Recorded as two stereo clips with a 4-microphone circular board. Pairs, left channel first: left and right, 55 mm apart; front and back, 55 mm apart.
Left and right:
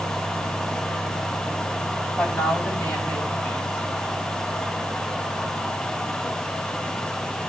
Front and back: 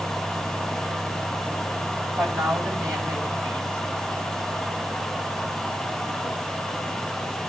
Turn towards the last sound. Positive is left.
turn(degrees=145)